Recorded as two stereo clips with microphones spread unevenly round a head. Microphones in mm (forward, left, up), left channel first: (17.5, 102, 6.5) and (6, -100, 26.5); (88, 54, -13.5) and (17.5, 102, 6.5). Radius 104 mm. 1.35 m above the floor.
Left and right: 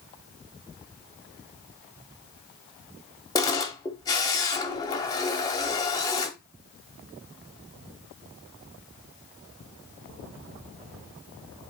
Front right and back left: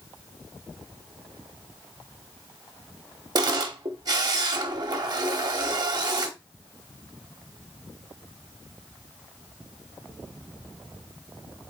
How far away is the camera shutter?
About 1.4 m.